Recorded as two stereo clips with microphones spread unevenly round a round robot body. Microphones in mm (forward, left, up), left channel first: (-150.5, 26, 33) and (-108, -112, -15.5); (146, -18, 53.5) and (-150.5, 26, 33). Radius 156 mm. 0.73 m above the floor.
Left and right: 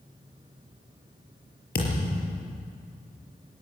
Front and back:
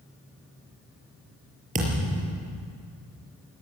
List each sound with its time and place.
1.8 s a thud: 105° left, 5.5 m